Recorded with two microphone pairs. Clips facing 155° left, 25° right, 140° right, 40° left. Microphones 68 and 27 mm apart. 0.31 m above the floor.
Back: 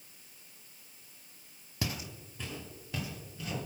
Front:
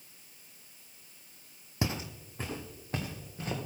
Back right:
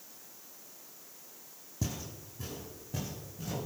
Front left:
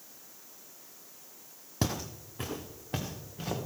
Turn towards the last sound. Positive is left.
turn(degrees=20)